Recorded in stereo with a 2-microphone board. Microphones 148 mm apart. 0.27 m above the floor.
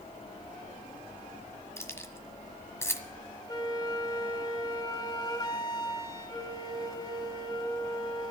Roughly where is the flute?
Left.